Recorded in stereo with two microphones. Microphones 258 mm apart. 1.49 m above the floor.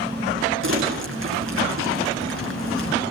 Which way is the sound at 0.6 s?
55° right (ahead or behind).